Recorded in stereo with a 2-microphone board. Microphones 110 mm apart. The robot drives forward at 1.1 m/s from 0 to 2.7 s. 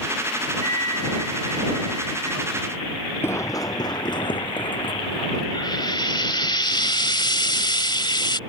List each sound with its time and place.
0.6 s a flute: 30° left (ahead or behind); by 2.5 s 35° left (ahead or behind)
3.2 s running footsteps: 20° left (ahead or behind); by 5.4 s 50° left (ahead or behind)
5.5 s frying: 45° left (ahead or behind)